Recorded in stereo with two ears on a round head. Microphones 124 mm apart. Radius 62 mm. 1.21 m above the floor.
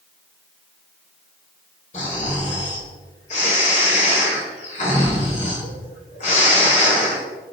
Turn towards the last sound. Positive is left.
turn(degrees=50)  # may be behind; listen again after turning